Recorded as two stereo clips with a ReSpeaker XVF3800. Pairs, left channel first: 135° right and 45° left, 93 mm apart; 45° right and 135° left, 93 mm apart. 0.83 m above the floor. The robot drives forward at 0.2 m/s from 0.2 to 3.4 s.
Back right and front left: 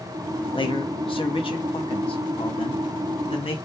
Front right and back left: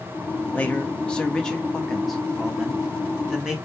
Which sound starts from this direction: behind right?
A man speaking, at 0.5 s.